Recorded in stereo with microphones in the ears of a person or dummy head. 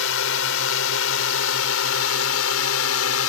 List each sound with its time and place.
0.0 s a drone: 65° left (ahead or behind); by 3.3 s 70° left (ahead or behind)